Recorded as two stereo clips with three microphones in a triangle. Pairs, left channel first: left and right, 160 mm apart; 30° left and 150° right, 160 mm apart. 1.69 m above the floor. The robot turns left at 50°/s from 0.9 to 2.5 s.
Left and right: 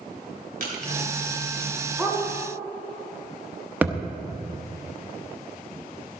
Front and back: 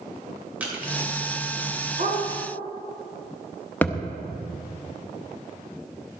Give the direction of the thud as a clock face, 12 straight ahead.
1 o'clock.